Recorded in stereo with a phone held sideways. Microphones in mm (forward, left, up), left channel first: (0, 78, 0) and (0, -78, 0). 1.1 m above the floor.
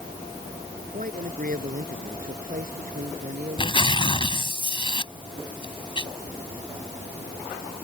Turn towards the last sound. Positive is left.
turn(degrees=35)  # may be behind; listen again after turning